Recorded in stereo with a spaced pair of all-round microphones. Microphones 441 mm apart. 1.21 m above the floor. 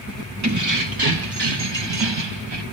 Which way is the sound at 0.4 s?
40° right (ahead or behind).